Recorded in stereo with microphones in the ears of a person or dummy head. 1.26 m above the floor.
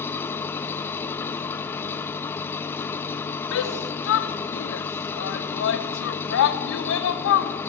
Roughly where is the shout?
Left.